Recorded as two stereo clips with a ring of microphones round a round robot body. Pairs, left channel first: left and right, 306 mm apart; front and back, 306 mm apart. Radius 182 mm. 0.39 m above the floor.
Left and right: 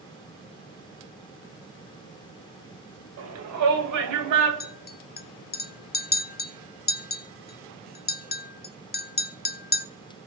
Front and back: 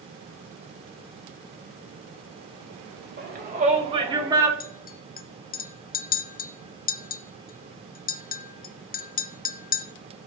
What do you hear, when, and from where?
3.2 s a shout: 125° right, 2 m; by 4.5 s 100° right, 3 m
4.6 s a clink: 45° left, 0.6 m